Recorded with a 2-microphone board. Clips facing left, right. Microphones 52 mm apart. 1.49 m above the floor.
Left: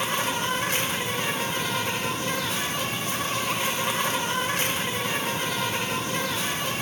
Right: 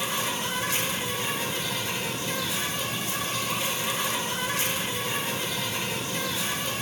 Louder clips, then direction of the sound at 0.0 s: Left 3 dB; 45° left (ahead or behind).